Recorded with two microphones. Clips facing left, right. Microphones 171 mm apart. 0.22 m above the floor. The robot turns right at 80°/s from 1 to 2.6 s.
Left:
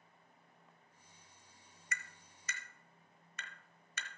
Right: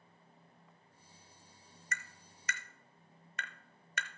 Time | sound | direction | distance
1.9 | tapping | 50° right (ahead or behind) | 0.8 m